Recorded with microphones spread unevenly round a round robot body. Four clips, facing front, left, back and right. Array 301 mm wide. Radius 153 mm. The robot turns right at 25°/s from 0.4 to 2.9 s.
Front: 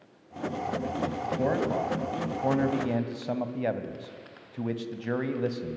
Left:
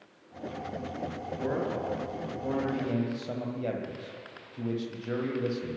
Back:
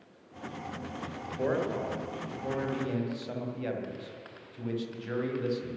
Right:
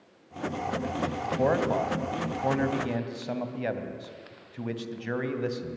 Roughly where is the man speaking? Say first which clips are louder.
Right 6 dB, front 1 dB; ahead right.